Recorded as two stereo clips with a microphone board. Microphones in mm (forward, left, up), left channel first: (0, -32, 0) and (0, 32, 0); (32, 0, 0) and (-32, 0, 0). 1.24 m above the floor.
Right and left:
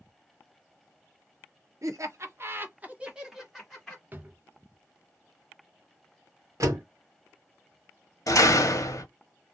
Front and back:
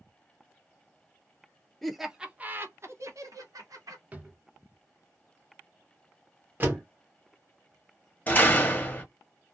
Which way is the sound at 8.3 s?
65° right.